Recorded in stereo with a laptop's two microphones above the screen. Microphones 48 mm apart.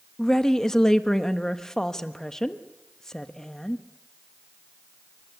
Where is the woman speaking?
10° left (ahead or behind), 1.1 m.